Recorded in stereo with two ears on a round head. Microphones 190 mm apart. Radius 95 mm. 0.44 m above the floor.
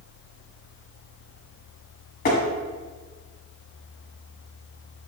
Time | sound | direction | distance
2.2 | tapping | 45° left (ahead or behind) | 1.3 m